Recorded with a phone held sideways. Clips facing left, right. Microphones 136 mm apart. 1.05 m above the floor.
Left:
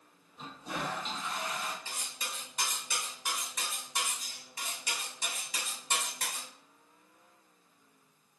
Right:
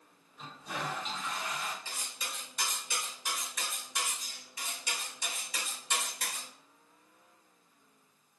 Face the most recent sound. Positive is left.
turn(degrees=50)  # may be behind; listen again after turning